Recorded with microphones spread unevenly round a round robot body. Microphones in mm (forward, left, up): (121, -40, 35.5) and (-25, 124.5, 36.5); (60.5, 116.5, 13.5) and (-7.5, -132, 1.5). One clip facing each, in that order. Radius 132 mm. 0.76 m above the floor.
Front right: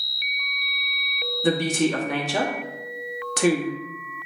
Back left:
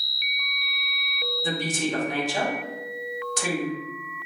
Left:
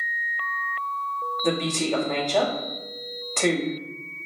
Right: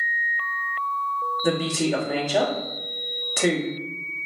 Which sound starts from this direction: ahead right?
A woman speaking, at 1.4 s.